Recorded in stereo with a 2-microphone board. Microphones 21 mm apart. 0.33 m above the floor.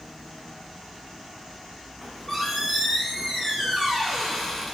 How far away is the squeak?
About 1.6 m.